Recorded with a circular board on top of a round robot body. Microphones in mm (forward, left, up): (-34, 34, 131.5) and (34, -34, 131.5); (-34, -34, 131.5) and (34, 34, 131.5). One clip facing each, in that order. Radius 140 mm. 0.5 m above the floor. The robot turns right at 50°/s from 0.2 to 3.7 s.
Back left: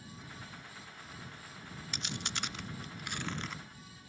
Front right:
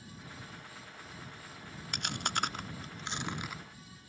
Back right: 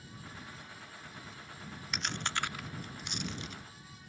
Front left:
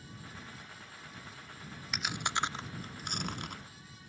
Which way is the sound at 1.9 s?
40° right.